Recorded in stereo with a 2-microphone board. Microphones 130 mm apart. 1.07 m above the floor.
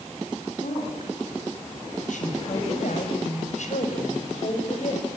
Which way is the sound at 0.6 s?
80° left.